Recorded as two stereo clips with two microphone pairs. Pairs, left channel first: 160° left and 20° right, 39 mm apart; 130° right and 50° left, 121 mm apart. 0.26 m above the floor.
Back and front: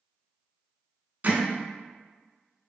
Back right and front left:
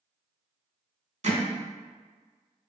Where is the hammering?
25° left, 0.6 m.